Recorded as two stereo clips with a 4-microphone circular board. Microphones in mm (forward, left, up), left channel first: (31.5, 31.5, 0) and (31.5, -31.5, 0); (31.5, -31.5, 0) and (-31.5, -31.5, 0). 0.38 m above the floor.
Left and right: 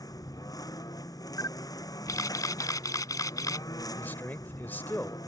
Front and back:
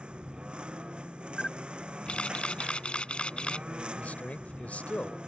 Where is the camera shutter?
70° left.